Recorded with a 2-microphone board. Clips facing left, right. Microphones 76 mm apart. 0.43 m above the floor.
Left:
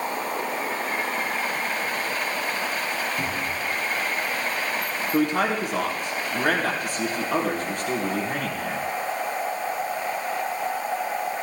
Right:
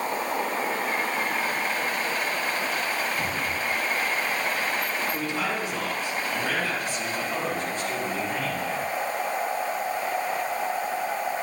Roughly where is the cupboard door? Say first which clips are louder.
Even; left.